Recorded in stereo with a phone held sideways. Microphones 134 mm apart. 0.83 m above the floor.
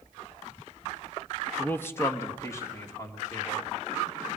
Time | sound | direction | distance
1.6 | a man speaking | 10° left (ahead or behind) | 0.9 m